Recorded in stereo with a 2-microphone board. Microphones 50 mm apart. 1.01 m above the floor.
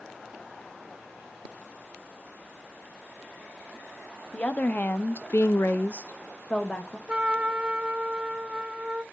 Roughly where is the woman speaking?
Left.